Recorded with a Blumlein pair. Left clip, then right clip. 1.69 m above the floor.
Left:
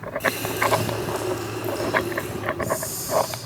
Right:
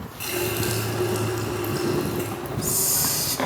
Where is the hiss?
30° right, 1.7 m.